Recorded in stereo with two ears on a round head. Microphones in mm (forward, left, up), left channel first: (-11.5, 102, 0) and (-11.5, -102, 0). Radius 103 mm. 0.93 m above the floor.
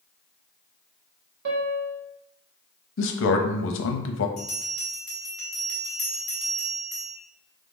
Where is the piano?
50° right (ahead or behind), 0.9 m.